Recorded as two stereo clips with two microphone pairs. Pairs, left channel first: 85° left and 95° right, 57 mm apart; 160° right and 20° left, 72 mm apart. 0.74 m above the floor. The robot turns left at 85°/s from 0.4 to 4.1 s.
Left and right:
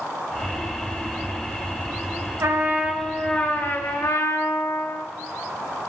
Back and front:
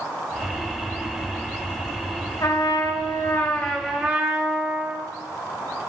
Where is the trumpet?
135° right, 1.8 m; by 5.1 s 80° left, 1.8 m.